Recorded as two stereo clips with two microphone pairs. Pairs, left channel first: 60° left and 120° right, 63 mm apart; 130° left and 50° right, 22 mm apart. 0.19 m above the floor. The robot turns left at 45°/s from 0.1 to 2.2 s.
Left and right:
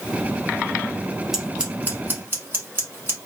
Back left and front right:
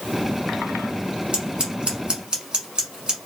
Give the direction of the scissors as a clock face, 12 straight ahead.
1 o'clock.